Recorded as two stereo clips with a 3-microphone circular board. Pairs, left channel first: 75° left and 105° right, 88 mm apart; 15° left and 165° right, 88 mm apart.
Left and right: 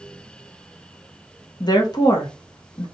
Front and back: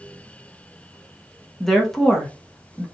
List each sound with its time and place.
1.6 s a woman speaking: 100° left, 0.8 m